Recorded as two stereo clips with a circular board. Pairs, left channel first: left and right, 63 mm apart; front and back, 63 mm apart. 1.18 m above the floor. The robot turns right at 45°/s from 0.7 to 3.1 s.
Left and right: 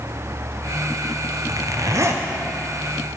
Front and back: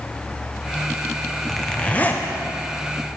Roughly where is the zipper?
Right.